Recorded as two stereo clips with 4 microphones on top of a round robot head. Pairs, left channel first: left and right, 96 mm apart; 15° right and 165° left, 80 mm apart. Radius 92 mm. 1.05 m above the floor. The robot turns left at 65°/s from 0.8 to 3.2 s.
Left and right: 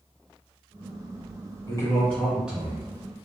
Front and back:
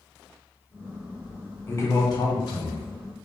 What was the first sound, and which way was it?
A man speaking, 45° left.